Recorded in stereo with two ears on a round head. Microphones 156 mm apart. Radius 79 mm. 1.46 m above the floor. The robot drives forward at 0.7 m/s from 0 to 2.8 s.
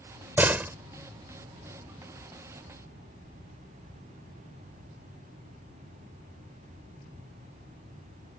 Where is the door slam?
10° right (ahead or behind).